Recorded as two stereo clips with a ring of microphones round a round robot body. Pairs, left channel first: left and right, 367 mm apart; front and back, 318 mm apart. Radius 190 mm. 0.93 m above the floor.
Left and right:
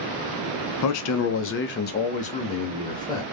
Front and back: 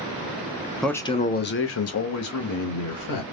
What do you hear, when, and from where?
0.8 s a man speaking: 90° left, 0.6 m; by 3.2 s 10° left, 1.4 m